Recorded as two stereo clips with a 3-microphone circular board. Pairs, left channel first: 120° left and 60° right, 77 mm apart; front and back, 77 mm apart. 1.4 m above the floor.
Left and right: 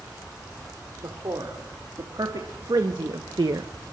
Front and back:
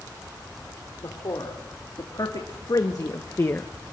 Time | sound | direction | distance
1.0 | a man speaking | 30° right | 3.5 m